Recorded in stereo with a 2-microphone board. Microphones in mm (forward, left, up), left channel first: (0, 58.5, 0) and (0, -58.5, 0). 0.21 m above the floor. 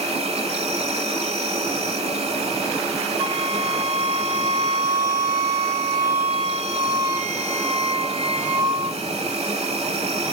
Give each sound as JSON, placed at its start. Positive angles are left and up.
{"t": 0.0, "sound": "an insect", "side_deg": -60, "distance_m": 1.0}
{"t": 3.2, "sound": "a flute", "side_deg": -45, "distance_m": 1.6}